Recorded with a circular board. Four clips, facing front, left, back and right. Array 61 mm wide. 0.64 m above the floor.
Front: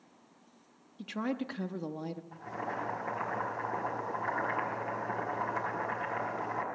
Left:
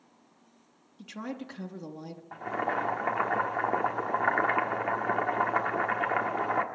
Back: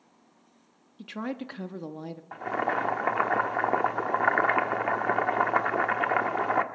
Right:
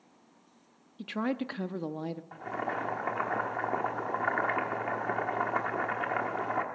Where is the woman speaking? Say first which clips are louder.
Right 6 dB, even; 105° right, 0.5 m.